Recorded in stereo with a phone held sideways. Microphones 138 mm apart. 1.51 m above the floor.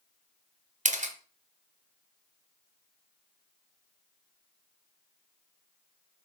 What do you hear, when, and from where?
0.8 s a camera shutter: 60° right (ahead or behind), 0.6 m